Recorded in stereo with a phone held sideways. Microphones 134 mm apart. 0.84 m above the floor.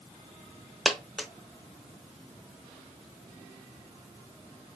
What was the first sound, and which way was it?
A dropped coin, centre (ahead or behind).